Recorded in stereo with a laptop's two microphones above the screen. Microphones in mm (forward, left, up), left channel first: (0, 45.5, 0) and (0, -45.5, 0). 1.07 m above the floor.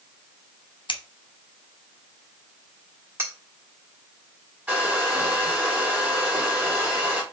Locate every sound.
0.9 s scissors: 60° left (ahead or behind), 0.6 m
3.2 s cutlery clinking: 25° right (ahead or behind), 1.4 m
4.7 s a hair dryer: 20° right (ahead or behind), 2 m